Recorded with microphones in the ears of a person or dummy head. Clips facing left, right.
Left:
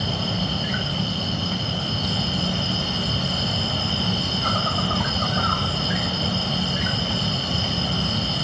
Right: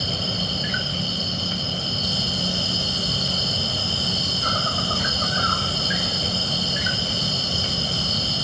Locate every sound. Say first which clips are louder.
0.0 s an insect: left 3 dB; 35° right (ahead or behind)